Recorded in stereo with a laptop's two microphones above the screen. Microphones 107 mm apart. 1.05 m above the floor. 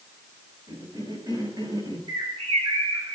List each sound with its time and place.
0.7 s a cough: 40° right (ahead or behind), 7 m
2.1 s a bird: 60° right (ahead or behind), 9.5 m